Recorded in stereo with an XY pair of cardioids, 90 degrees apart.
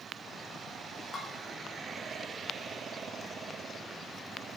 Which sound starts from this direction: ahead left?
Dishes clattering, at 1.1 s.